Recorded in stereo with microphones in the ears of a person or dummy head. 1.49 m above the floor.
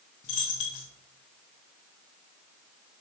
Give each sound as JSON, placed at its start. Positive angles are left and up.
{"t": 0.2, "sound": "a dropped coin", "side_deg": 40, "distance_m": 1.1}